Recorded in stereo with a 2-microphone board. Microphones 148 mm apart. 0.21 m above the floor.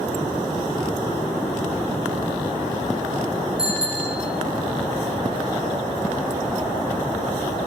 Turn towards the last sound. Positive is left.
turn(degrees=-5)  # may be behind; listen again after turning